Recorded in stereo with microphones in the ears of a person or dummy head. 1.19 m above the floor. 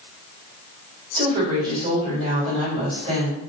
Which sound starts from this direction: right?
A woman speaking, at 1.1 s.